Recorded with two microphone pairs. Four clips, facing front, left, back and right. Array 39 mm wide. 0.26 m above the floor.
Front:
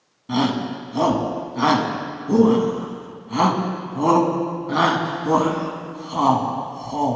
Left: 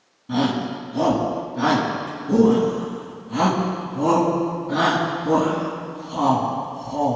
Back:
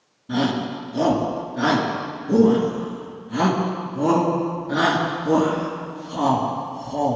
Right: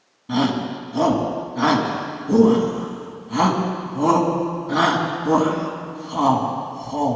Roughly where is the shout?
Ahead right.